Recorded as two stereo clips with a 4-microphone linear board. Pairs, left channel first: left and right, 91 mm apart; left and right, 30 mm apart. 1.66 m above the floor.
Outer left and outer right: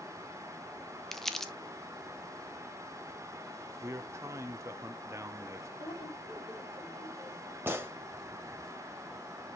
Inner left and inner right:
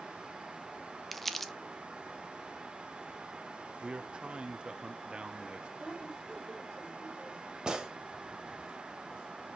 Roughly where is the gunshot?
Right.